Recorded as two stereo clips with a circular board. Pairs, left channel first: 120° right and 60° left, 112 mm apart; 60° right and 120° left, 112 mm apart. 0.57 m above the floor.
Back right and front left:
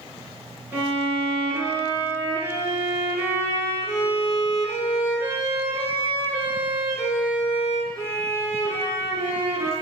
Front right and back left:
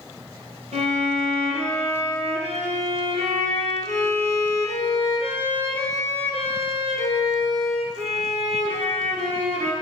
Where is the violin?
130° left, 5 m.